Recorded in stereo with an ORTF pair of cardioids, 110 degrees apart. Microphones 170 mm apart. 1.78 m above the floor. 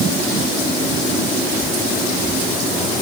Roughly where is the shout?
No shout in this recording.